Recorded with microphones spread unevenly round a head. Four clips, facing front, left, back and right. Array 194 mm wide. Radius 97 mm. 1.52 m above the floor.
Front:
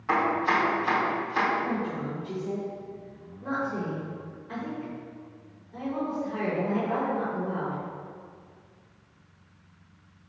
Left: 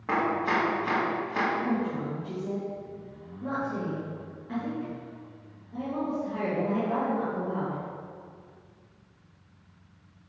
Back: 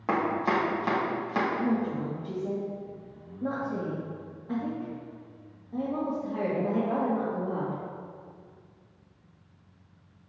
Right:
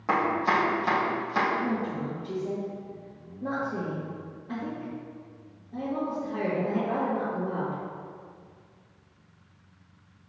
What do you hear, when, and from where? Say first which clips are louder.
0.1 s chopping: right 2 dB, front 2 dB; 165° right, 1.3 m
1.6 s a woman speaking: left 1 dB, back 2 dB; 170° right, 2.5 m